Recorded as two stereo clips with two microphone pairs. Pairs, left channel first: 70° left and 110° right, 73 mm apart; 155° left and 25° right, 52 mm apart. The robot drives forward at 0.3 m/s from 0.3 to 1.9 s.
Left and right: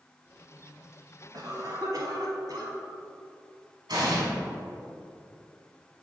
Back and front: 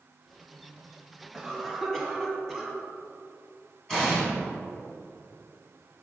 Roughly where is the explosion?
Behind right.